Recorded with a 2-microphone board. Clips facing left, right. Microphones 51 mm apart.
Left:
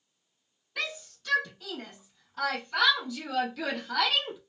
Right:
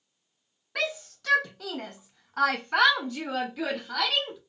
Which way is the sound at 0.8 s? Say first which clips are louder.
Right 5 dB; 70° right (ahead or behind).